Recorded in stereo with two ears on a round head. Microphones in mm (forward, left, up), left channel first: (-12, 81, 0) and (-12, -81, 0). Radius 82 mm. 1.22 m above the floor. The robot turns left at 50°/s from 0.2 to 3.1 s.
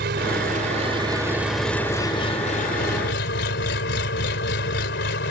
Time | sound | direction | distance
0.0 | an engine running | 110° right | ?